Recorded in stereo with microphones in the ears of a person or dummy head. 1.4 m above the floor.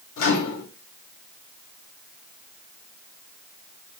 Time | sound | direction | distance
0.2 | a microwave | 80° left | 1.8 m